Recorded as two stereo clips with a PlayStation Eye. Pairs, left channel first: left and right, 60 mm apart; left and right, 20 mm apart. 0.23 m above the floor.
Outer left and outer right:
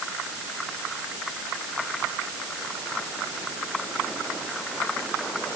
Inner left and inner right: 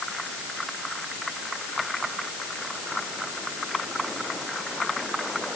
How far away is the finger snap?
No finger snap in this recording.